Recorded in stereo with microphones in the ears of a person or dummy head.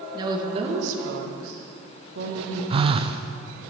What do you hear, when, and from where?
0.1 s a woman speaking: 25° right (ahead or behind), 1.9 m; by 2.6 s 50° right (ahead or behind), 2 m
2.7 s a phone buzzing: 30° right (ahead or behind), 0.6 m